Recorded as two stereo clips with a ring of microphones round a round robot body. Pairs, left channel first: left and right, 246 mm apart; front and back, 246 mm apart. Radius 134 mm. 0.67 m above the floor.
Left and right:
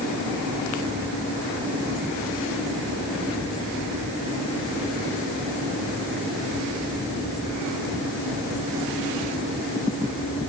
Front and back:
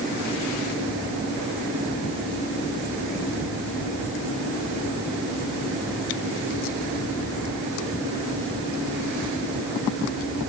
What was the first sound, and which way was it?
Only background noise.